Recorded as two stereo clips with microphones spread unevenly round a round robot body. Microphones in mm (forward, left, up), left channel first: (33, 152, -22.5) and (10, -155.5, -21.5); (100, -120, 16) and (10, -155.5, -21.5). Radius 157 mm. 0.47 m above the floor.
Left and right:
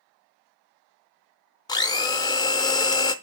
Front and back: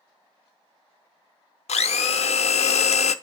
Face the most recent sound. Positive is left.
turn(degrees=10)